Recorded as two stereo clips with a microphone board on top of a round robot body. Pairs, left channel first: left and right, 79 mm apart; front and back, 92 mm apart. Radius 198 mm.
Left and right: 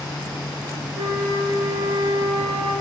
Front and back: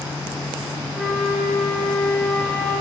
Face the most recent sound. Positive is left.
turn(degrees=-90)